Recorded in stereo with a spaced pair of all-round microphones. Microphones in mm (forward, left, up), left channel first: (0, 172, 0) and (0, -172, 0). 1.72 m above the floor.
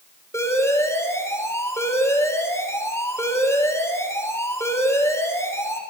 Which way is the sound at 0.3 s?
10° left (ahead or behind).